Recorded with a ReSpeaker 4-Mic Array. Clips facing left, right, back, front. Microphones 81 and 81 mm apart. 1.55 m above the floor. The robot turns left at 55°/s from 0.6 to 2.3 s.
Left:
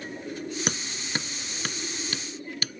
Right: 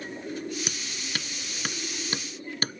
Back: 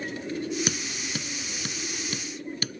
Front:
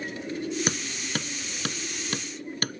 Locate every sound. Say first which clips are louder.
0.7 s hammering: left 4 dB, front 1 dB; 50° left; by 2.8 s 40° right